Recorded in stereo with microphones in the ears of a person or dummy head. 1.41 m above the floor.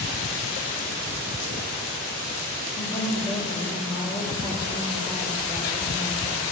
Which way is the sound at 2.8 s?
20° left (ahead or behind).